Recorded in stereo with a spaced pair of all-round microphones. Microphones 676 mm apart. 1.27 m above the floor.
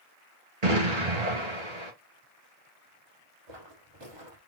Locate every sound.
0.6 s an explosion: 75° right (ahead or behind), 2.5 m
3.5 s footsteps: 40° right (ahead or behind), 2.5 m